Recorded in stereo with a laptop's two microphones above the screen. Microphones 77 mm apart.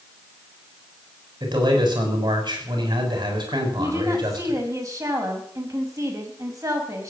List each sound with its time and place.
1.4 s a man speaking: 80° right, 6 m
3.8 s a woman speaking: 45° right (ahead or behind), 5 m